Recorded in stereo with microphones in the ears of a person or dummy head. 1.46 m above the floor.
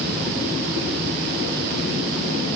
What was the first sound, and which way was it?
Only background noise.